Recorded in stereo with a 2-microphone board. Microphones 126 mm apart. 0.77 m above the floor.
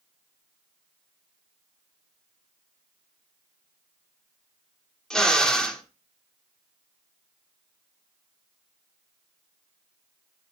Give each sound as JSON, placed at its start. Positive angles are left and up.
{"t": 5.1, "sound": "a drill", "side_deg": 5, "distance_m": 1.5}